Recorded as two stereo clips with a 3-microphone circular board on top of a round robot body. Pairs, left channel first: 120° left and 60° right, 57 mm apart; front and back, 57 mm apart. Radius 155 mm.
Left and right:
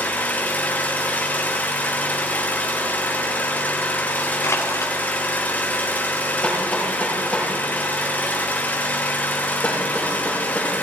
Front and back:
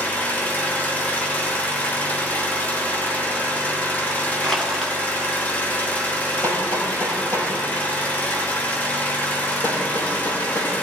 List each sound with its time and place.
0.0 s an engine running: 60° left, 2 m
4.4 s crushing: 80° left, 1.8 m
6.4 s hammering: 45° left, 8 m